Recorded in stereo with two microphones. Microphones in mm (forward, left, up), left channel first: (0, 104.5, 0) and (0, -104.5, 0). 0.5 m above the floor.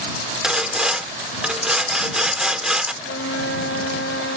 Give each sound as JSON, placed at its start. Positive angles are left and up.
{"t": 0.4, "sound": "sawing", "side_deg": -5}
{"t": 3.0, "sound": "a flute", "side_deg": 90}